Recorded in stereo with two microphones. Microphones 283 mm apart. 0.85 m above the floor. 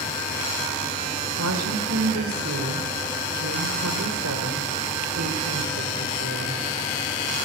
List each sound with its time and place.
1.4 s a woman speaking: 70° right (ahead or behind), 3.5 m